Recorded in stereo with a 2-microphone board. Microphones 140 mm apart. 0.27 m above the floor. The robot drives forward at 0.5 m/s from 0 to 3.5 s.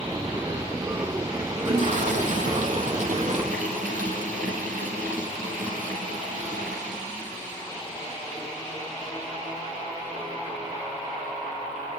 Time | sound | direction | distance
1.6 | a toilet flushing | 60° right (ahead or behind) | 4.5 m